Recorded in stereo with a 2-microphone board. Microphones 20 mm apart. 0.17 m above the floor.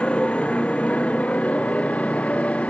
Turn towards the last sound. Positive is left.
turn(degrees=80)